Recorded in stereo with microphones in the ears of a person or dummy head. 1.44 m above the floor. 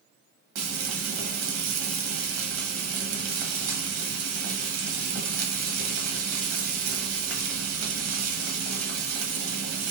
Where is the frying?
65° right (ahead or behind), 0.9 m.